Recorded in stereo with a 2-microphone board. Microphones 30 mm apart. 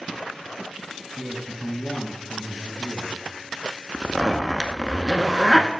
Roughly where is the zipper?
Centre.